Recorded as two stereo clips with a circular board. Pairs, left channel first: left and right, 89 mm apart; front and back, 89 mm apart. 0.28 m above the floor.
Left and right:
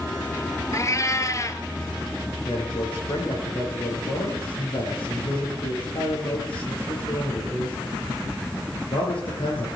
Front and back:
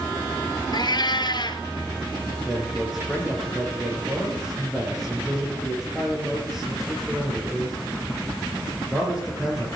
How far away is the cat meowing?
About 1.0 m.